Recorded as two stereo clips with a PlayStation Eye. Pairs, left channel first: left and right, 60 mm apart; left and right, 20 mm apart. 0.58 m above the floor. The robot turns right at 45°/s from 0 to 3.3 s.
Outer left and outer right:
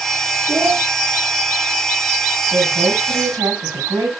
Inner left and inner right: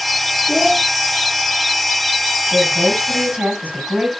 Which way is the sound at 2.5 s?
120° right.